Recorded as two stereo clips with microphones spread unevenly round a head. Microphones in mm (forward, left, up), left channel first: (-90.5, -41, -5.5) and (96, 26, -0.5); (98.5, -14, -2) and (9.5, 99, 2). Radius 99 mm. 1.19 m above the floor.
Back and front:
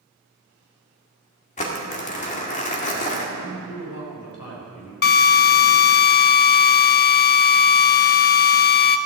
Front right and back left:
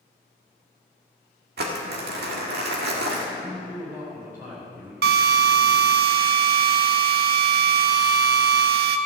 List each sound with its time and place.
1.6 s crumpling: 145° left, 1.8 m
3.3 s a man speaking: 150° right, 4 m
5.0 s a drill: 155° left, 0.6 m